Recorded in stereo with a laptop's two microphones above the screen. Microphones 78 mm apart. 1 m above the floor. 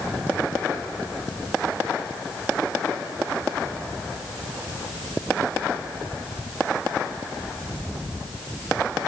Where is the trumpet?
I don't hear a trumpet.